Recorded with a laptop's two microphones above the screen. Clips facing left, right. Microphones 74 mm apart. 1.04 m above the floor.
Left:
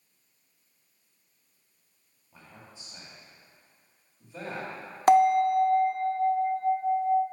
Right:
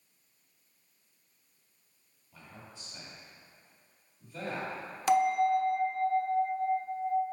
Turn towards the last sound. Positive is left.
turn(degrees=45)  # may be behind; listen again after turning